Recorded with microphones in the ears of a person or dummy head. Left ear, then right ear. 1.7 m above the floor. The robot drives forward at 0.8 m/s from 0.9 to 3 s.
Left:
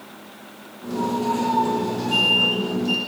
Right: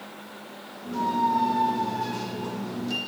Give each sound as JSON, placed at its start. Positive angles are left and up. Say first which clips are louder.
{"t": 0.9, "sound": "a squeak", "louder": "even", "side_deg": -60, "distance_m": 3.0}